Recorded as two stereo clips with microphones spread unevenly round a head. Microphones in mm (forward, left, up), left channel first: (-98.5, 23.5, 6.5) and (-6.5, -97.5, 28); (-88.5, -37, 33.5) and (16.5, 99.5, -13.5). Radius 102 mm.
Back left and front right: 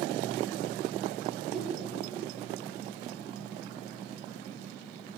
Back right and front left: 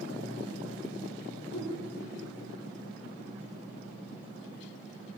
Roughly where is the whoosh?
Behind right.